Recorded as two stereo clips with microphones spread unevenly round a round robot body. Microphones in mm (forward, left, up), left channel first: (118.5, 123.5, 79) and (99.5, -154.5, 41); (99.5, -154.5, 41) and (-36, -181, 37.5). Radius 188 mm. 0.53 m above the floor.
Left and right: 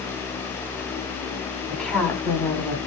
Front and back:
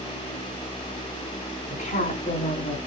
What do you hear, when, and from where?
1.7 s a woman speaking: 5° right, 5 m; by 2.8 s 5° left, 5.5 m